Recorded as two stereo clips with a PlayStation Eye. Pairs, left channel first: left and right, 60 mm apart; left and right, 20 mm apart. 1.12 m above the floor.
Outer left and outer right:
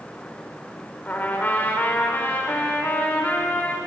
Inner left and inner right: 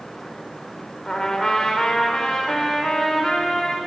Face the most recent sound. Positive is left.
turn(degrees=30)  # may be behind; listen again after turning